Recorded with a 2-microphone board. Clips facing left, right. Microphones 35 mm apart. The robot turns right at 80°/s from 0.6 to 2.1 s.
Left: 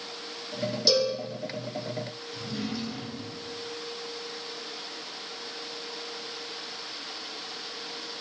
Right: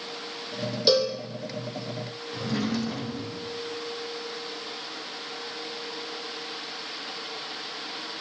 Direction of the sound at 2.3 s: 75° right (ahead or behind).